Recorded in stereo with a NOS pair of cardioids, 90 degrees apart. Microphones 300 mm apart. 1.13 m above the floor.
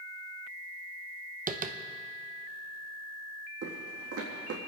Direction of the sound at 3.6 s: 55° right.